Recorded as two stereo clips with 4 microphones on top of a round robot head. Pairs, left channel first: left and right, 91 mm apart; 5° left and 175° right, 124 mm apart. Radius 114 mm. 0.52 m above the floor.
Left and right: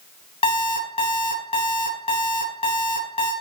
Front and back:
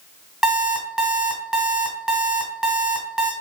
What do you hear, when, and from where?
0.4 s an alarm clock: 100° left, 2.0 m